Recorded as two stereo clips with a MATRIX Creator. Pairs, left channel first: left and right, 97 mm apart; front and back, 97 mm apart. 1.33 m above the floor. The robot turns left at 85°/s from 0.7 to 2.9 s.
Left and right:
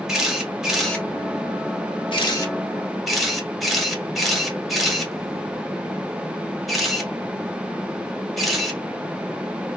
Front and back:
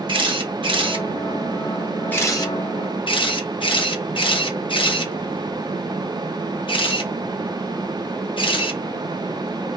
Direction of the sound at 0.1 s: 175° right.